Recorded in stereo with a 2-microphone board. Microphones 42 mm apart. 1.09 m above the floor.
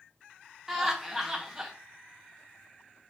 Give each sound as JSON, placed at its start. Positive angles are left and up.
{"t": 0.7, "sound": "laughter", "side_deg": -10, "distance_m": 0.6}